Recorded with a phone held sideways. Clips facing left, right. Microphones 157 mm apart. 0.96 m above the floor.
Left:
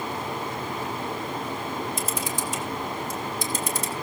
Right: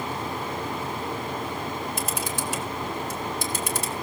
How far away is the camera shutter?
About 3.5 m.